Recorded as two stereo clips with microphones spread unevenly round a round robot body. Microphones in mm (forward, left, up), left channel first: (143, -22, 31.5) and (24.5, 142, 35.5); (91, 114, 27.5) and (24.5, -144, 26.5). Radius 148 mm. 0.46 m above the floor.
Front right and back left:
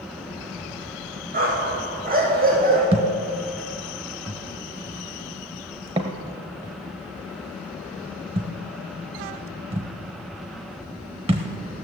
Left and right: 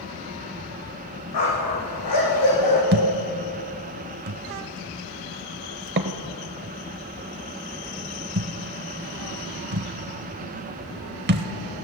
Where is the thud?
160° right, 0.6 m.